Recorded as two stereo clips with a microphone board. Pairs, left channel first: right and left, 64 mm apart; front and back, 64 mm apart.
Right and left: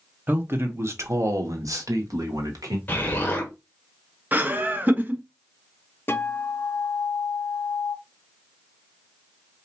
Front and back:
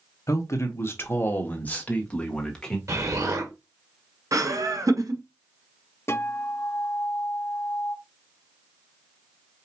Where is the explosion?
150° right, 1.3 m.